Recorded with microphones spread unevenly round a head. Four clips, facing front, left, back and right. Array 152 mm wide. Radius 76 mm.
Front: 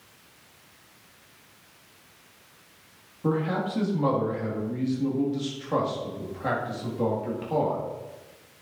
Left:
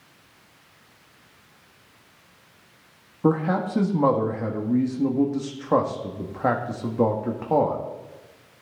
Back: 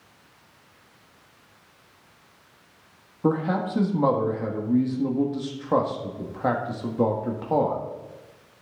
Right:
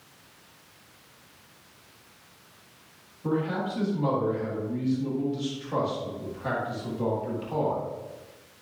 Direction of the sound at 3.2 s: 115° left.